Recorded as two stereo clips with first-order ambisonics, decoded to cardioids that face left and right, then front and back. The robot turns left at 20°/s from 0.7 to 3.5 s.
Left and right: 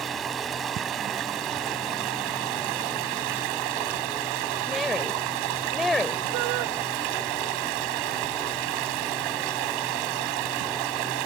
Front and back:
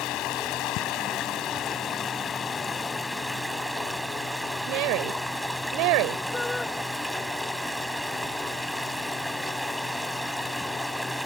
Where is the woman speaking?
175° left.